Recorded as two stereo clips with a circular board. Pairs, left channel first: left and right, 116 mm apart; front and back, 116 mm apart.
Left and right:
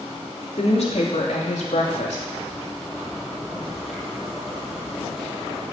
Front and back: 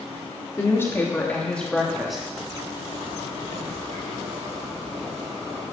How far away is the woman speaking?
About 3 m.